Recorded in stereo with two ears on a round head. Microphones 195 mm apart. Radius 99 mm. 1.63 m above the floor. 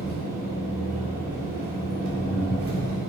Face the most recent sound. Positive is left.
turn(degrees=-75)  # may be behind; listen again after turning